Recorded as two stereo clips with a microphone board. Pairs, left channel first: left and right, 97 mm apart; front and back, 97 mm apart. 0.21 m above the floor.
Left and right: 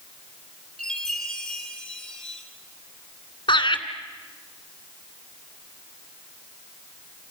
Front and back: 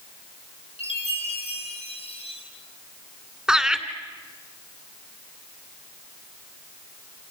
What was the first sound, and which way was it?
A chime, 5° left.